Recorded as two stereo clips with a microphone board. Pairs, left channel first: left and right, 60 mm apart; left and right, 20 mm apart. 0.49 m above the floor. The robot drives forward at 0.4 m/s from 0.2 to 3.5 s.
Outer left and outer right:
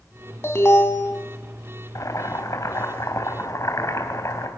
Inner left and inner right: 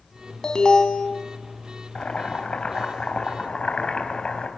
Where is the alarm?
45° left (ahead or behind), 3 m; by 1.1 s 40° left (ahead or behind), 3 m.